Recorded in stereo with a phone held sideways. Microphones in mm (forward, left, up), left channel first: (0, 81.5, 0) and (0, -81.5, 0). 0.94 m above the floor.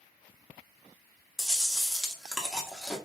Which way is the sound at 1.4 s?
5° right (ahead or behind).